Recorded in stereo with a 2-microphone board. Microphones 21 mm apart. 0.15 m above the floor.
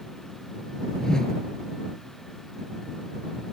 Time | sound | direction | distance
1.0 | a whoosh | 25° left (ahead or behind) | ?